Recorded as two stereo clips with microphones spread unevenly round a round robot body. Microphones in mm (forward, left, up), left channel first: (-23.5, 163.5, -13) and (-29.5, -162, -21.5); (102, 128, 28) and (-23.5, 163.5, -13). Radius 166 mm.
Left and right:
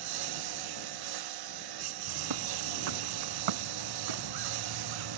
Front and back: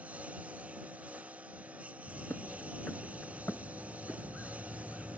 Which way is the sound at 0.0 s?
110° right.